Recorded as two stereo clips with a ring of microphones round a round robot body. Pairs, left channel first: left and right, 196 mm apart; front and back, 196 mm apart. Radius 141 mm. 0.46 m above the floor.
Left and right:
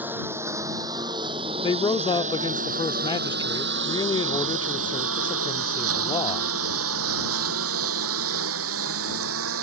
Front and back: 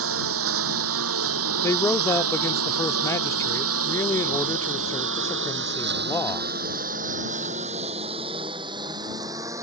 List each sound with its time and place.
0.0 s a lawn mower: 175° right; by 9.6 s 100° right
1.6 s a man speaking: 60° left